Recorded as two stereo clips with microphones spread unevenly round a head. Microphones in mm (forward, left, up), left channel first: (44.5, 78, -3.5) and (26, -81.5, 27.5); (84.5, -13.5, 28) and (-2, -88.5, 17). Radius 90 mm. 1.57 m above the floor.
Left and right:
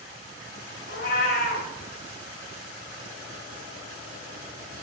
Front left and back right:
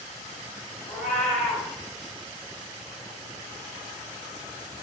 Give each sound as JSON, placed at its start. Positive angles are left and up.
{"t": 0.9, "sound": "a cat meowing", "azimuth_deg": 115, "distance_m": 1.4}